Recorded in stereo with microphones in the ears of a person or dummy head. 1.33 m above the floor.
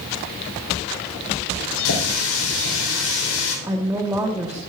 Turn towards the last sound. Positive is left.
turn(degrees=-10)  # may be behind; listen again after turning